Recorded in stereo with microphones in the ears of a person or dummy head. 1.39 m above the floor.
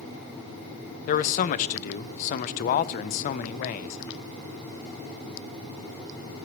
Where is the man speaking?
45° left (ahead or behind), 0.6 m.